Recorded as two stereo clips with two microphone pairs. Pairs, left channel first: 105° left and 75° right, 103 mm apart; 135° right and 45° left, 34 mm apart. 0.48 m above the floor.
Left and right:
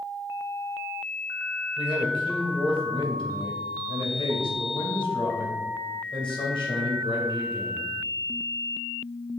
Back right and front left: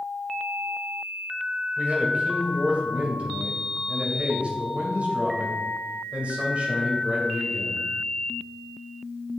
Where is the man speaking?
85° left, 2.5 m.